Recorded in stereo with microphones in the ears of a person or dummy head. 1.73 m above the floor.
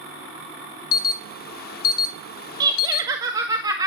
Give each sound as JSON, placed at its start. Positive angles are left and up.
{"t": 0.9, "sound": "an alarm", "side_deg": 50, "distance_m": 0.7}
{"t": 2.6, "sound": "laughter", "side_deg": -25, "distance_m": 1.8}